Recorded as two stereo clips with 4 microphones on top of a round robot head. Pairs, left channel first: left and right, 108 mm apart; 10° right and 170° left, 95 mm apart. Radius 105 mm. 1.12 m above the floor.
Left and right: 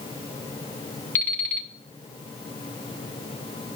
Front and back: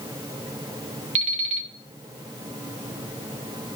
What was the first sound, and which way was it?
An alarm clock, 165° left.